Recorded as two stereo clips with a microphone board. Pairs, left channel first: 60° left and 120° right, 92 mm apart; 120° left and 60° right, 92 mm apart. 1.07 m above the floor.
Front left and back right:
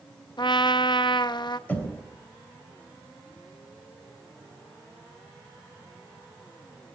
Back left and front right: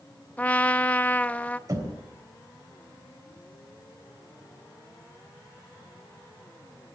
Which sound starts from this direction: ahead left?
A trumpet, at 0.4 s.